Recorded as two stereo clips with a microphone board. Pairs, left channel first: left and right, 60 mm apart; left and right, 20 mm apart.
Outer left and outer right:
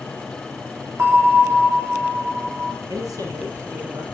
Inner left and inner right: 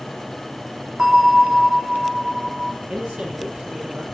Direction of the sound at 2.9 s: 70° right (ahead or behind).